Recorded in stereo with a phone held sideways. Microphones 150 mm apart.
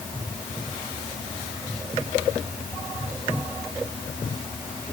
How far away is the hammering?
No hammering in this recording.